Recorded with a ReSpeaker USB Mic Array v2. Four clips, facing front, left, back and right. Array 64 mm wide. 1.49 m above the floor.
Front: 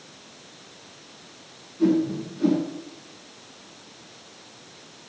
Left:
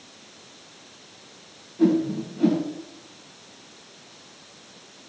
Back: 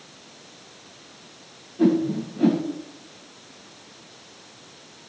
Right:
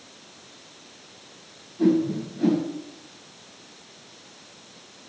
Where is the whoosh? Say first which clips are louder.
Even, back 1 dB; 165° left, 1.9 m.